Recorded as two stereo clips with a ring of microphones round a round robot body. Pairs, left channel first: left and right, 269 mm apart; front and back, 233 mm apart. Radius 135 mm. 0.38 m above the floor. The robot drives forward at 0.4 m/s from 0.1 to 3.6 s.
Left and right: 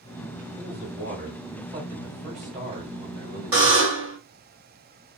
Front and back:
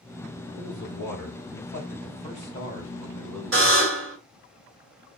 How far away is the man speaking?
About 2 m.